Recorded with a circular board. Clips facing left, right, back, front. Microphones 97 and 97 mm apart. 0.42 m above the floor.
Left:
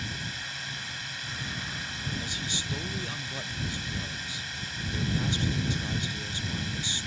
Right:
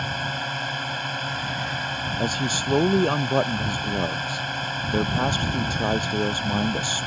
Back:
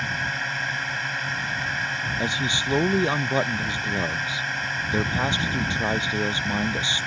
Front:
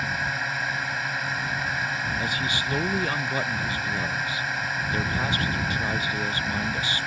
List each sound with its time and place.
0.0 s a drone: 85° right
2.2 s a man speaking: 115° right